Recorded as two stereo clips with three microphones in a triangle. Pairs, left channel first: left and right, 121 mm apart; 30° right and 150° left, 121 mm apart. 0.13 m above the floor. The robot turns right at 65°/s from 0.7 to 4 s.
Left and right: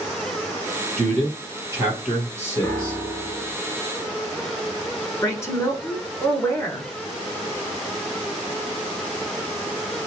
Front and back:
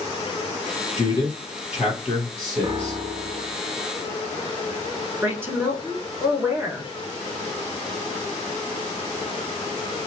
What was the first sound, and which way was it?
A man speaking, 80° right.